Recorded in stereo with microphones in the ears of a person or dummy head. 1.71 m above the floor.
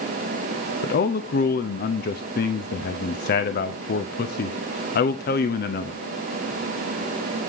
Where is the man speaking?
50° left (ahead or behind), 0.9 m.